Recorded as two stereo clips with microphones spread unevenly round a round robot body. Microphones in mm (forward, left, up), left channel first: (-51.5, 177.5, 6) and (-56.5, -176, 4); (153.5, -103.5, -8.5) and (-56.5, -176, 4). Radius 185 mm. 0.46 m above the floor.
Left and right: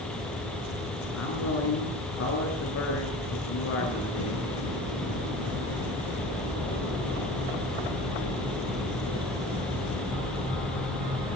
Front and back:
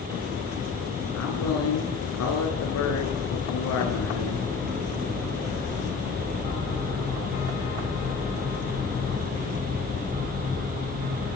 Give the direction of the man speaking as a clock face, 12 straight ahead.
11 o'clock.